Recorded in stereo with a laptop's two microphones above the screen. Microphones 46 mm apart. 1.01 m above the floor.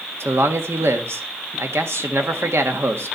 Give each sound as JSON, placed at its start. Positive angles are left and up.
{"t": 0.2, "sound": "a man speaking", "side_deg": -70, "distance_m": 1.6}